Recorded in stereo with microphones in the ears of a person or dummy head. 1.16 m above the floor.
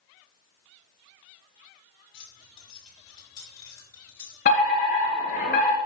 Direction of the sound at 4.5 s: 40° left (ahead or behind).